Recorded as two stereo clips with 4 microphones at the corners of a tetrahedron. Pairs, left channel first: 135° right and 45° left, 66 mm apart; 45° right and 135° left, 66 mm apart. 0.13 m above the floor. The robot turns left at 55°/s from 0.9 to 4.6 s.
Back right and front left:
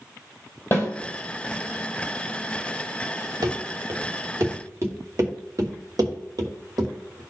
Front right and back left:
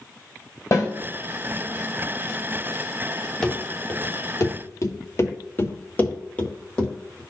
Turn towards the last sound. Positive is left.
turn(degrees=35)